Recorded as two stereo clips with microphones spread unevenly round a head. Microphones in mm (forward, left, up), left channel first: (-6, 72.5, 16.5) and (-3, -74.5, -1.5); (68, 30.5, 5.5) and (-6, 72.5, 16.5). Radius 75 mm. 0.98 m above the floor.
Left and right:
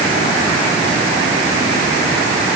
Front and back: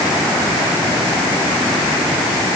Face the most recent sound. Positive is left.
No sound to turn to.